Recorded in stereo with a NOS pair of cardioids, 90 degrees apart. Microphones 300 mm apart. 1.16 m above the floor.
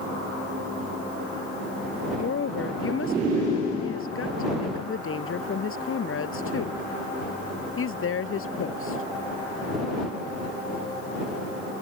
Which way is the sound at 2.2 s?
45° left.